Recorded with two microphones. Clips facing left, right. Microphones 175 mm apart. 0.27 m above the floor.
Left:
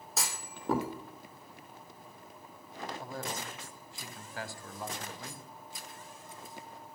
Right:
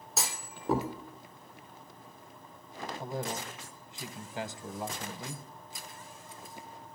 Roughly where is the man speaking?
Right.